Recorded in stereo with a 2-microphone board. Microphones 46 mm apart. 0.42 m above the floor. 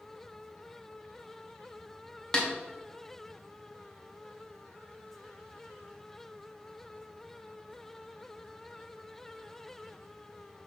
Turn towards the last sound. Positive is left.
turn(degrees=15)  # may be behind; listen again after turning